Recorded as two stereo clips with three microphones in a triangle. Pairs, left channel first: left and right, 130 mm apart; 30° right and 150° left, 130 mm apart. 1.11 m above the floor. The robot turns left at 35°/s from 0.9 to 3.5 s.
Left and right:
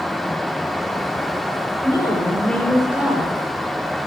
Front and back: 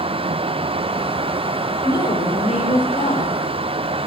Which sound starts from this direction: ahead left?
A woman speaking, at 1.8 s.